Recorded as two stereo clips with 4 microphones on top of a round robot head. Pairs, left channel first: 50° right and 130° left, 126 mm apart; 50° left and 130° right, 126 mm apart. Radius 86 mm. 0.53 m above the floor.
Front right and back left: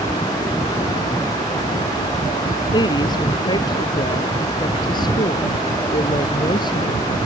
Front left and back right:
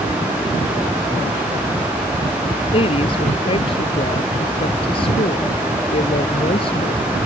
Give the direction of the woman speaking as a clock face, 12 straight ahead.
12 o'clock.